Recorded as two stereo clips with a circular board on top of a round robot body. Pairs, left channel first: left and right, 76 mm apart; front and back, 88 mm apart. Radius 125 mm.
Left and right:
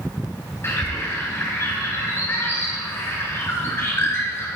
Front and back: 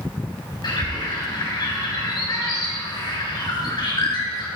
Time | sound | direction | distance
0.6 | a bird | 35° left | 4.5 m